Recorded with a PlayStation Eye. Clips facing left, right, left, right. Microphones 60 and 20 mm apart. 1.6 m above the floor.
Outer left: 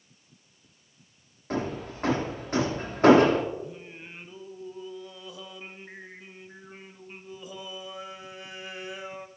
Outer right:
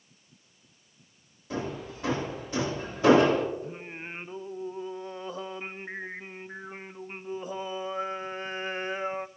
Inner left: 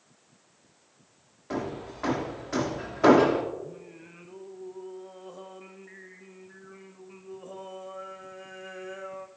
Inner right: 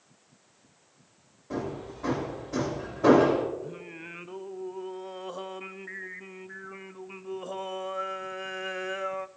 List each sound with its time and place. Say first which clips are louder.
1.5 s hammering: outer left 3 dB, inner left 1 dB; 50° left (ahead or behind), 2.5 m
3.6 s singing: outer right 2 dB, inner right 3 dB; 40° right (ahead or behind), 0.5 m